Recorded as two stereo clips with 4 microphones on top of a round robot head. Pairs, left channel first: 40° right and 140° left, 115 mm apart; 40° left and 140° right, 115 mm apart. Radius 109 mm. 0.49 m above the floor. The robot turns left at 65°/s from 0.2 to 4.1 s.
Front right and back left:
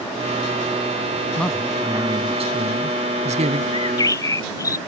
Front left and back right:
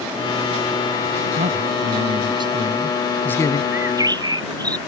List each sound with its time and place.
1.4 s a man speaking: 120° right; by 3.6 s 95° left
3.7 s a bird: 70° right; by 4.8 s 95° right